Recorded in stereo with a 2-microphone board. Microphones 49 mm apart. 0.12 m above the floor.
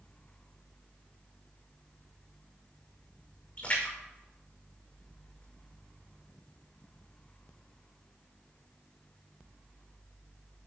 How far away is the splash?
About 6.5 m.